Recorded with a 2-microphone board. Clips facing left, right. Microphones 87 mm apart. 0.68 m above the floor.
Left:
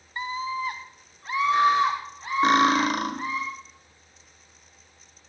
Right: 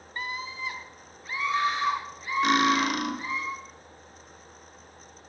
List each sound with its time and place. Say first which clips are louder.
0.2 s a scream: left 6 dB; 20° left (ahead or behind), 0.6 m; by 3.4 s 75° left (ahead or behind), 2 m
2.4 s cutlery clinking: left 3 dB; 35° left (ahead or behind), 1.5 m